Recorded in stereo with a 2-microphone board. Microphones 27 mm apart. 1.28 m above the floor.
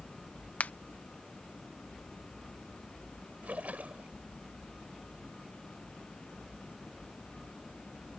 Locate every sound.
0.6 s a finger snap: 75° left (ahead or behind)
3.4 s a splash: 70° right (ahead or behind)